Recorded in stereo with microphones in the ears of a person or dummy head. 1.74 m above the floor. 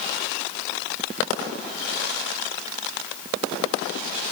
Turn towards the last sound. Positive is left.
No sound to turn to.